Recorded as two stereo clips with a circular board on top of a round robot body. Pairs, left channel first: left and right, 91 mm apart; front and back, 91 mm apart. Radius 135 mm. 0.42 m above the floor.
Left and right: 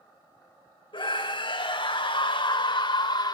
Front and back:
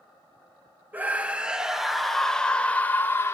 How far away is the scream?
About 3 m.